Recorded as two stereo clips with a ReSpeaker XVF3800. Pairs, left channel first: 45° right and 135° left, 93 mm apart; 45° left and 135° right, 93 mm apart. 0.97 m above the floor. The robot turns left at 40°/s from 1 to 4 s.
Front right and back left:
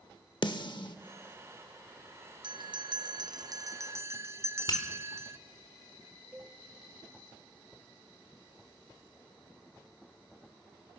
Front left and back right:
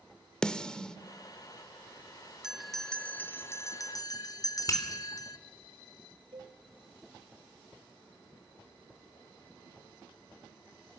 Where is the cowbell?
150° right, 1.9 m.